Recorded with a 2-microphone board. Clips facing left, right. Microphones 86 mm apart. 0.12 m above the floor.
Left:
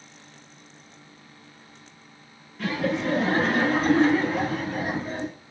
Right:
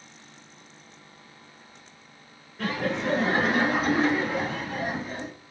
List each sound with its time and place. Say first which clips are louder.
2.6 s laughter: left 2 dB; 35° right (ahead or behind), 1.8 m; by 5.3 s 25° left (ahead or behind), 1.5 m